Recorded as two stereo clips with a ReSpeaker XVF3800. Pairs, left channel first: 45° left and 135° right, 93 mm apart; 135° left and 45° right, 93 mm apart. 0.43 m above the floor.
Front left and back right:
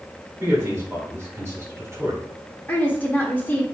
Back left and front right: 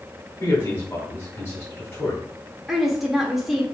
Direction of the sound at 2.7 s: 40° left.